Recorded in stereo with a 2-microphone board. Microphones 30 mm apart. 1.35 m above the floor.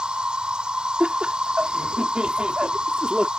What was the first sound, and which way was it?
An insect, 35° right (ahead or behind).